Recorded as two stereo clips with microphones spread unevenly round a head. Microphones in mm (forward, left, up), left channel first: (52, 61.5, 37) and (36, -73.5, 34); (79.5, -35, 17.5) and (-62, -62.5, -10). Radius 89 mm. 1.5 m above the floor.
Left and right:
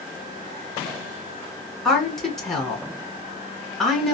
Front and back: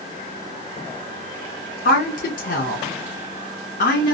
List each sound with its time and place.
1.9 s a woman speaking: 5° right, 1.1 m